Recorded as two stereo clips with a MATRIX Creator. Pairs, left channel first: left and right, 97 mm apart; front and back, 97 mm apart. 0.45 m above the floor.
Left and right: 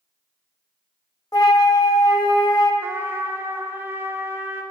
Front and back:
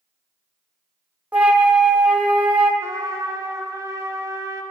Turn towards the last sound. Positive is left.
turn(degrees=-140)